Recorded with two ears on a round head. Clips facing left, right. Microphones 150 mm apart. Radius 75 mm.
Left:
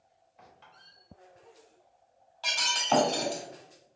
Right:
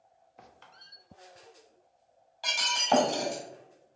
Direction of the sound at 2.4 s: 15° right (ahead or behind).